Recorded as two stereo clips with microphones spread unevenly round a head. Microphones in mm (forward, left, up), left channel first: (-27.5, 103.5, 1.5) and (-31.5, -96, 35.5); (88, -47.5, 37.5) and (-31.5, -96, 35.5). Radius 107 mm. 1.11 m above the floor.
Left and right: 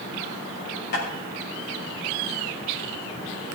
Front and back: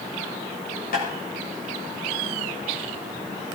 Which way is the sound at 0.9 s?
45° left.